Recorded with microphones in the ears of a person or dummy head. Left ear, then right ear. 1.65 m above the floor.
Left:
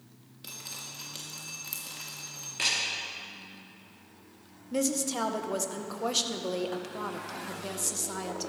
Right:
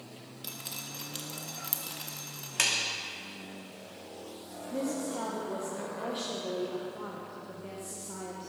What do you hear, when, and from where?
0.4 s dripping: 10° right (ahead or behind), 1.9 m
2.6 s a clap: 45° right (ahead or behind), 2.5 m
4.7 s a woman speaking: 75° left (ahead or behind), 1.5 m